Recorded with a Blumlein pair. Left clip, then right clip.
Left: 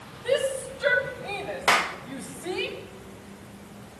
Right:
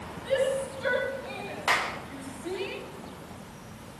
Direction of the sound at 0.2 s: 30° left.